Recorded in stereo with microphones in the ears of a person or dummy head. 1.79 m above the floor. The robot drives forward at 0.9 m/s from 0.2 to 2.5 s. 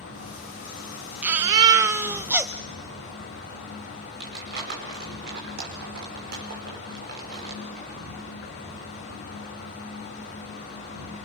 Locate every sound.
0.0 s an insect: 65° left (ahead or behind), 10 m; by 11.2 s 55° left (ahead or behind), 11 m
1.2 s a baby crying: 15° right (ahead or behind), 0.6 m; by 2.5 s 10° right (ahead or behind), 1.0 m
4.2 s crumpling: 60° right (ahead or behind), 5 m